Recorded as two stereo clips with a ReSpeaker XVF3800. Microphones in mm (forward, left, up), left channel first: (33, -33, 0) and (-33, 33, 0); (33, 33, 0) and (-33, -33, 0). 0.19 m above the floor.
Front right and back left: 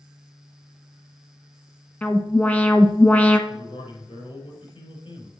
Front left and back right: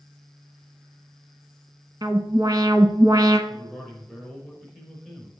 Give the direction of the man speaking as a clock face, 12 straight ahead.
2 o'clock.